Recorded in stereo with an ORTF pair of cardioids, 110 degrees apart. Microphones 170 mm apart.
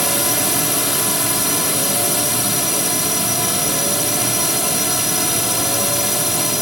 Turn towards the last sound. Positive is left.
turn(degrees=0)